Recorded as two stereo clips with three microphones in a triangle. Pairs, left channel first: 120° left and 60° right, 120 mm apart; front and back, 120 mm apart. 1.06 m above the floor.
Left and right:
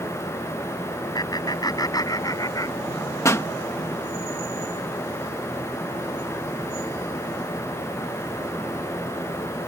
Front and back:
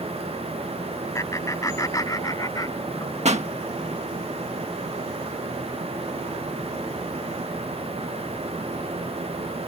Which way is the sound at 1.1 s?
65° left.